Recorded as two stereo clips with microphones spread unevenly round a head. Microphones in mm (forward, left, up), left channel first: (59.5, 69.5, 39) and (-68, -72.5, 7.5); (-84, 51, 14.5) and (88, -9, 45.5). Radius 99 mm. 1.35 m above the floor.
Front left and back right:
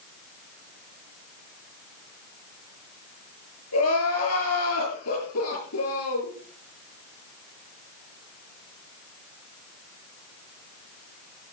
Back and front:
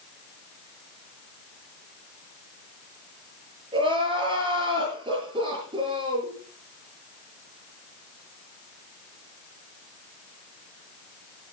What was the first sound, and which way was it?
Crying, 45° left.